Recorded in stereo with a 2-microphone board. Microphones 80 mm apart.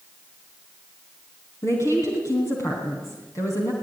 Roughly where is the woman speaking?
Left.